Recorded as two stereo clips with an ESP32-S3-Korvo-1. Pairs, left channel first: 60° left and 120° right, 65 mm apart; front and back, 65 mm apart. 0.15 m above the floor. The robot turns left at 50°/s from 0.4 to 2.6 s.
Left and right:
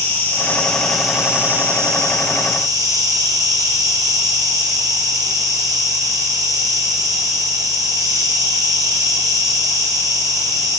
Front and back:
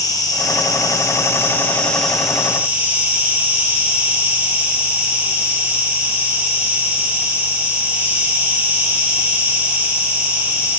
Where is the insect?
Straight ahead, 5.5 m; by 10.8 s 110° right, 5.5 m.